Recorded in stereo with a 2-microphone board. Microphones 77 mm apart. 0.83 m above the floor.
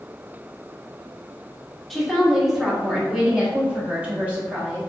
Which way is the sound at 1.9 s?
Centre (ahead or behind).